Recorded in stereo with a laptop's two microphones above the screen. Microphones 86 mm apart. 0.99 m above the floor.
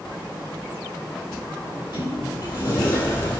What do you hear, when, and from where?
1.6 s a sliding door: 70° left (ahead or behind), 4 m